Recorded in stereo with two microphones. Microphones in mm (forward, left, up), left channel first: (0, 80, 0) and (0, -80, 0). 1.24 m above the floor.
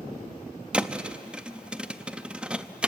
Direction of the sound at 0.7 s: 5° right (ahead or behind).